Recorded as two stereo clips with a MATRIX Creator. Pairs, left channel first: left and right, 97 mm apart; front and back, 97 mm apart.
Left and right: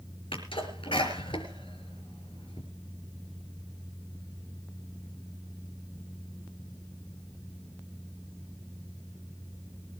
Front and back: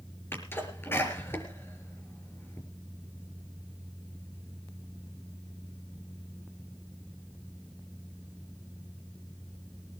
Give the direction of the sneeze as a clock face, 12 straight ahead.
10 o'clock.